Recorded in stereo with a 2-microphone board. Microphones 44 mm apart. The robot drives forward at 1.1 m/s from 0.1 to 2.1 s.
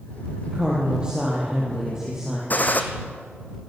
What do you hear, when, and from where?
0.5 s a woman speaking: 25° right (ahead or behind), 5.5 m; by 2.4 s 15° right (ahead or behind), 7 m
2.5 s a gunshot: 40° left (ahead or behind), 2.5 m